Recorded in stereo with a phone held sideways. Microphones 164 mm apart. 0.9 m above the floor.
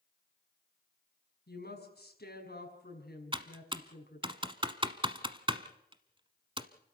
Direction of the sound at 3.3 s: 30° right (ahead or behind).